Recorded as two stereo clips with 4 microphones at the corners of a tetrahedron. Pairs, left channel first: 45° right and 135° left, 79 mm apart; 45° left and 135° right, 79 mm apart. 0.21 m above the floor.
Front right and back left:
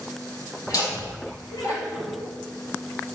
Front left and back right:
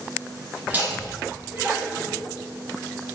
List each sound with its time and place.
0.7 s laughter: 70° right, 2.5 m